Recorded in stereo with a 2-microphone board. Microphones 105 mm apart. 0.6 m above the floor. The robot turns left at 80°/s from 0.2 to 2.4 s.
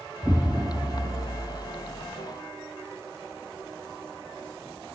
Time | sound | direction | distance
0.2 | an explosion | 10° right | 0.9 m